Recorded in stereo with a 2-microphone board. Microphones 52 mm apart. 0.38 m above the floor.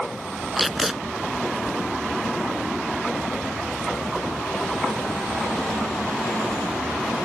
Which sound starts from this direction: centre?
Tape being pulled, at 0.6 s.